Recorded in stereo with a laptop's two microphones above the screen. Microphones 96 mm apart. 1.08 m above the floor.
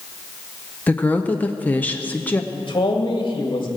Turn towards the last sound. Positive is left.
turn(degrees=55)  # may be behind; listen again after turning